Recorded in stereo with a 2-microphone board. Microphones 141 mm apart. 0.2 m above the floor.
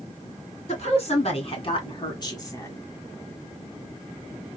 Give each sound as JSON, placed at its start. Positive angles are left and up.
{"t": 0.7, "sound": "a woman speaking", "side_deg": 55, "distance_m": 2.0}